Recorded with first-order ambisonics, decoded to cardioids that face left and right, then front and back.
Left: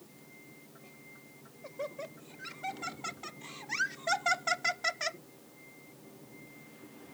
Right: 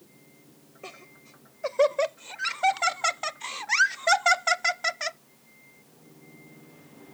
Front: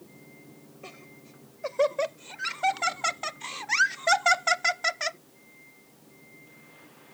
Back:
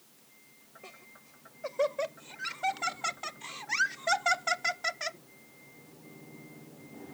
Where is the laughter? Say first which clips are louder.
Right 12 dB, front 5 dB; 70° right; by 5.2 s 20° right.